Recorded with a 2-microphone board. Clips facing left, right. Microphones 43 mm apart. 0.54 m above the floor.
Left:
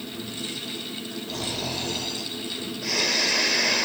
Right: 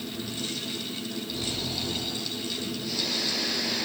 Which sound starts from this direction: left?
Snoring, at 1.3 s.